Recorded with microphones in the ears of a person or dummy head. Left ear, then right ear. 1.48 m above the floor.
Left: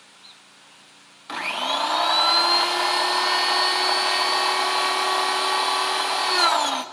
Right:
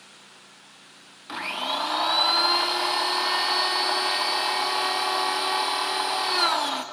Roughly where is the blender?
Centre.